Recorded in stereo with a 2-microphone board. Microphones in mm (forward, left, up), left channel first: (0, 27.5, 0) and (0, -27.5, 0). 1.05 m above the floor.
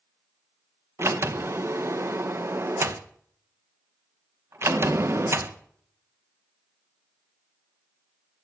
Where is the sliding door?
50° right (ahead or behind), 0.8 m.